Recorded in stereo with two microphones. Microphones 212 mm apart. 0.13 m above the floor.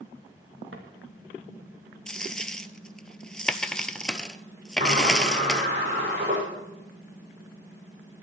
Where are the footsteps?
70° right (ahead or behind), 3 m.